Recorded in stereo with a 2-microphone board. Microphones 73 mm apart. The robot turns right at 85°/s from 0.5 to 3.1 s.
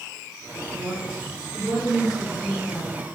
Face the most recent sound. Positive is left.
turn(degrees=75)